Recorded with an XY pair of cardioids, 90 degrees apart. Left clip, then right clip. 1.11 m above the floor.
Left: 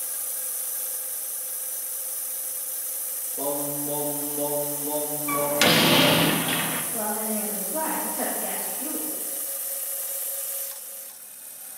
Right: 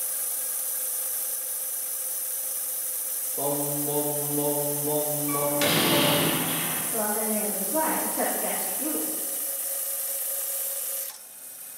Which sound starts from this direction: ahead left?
A door slam, at 5.3 s.